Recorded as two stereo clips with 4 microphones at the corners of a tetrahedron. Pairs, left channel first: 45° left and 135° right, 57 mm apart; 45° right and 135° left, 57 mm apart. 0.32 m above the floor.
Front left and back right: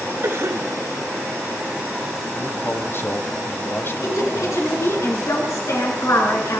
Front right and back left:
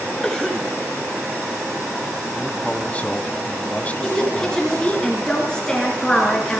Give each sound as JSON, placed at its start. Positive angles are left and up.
{"t": 0.2, "sound": "a cough", "azimuth_deg": -125, "distance_m": 2.0}
{"t": 2.4, "sound": "a man speaking", "azimuth_deg": 15, "distance_m": 1.9}
{"t": 4.0, "sound": "a woman speaking", "azimuth_deg": 30, "distance_m": 5.0}